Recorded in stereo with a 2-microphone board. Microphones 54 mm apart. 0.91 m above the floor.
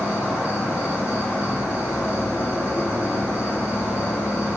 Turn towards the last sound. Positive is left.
turn(degrees=60)  # may be behind; listen again after turning